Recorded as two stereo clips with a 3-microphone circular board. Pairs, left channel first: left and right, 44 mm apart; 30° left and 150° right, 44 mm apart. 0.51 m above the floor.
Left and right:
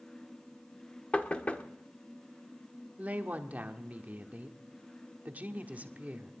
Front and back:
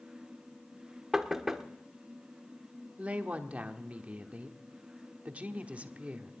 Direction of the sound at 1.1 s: 130° left.